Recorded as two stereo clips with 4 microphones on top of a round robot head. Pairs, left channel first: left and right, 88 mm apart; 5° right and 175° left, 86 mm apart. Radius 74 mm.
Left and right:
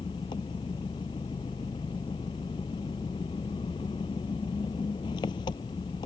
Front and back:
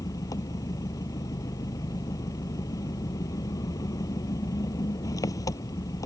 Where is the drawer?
I don't hear a drawer.